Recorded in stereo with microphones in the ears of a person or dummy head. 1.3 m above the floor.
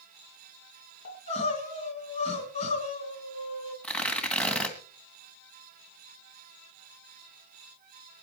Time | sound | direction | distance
1.1 | crying | 40° left (ahead or behind) | 4 m
3.8 | tearing paper | 10° left (ahead or behind) | 2 m